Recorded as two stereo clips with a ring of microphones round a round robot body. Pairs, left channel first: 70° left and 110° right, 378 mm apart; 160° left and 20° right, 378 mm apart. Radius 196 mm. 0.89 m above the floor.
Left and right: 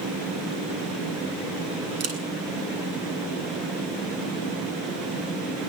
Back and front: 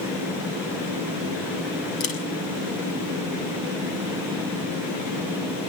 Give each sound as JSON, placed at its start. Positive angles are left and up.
{"t": 2.0, "sound": "a camera shutter", "azimuth_deg": -165, "distance_m": 6.0}